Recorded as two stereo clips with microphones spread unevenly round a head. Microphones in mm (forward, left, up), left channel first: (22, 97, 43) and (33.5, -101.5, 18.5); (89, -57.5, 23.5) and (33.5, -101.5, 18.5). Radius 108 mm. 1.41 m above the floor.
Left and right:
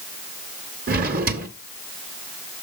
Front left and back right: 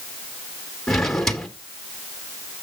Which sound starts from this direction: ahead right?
A drawer, at 0.9 s.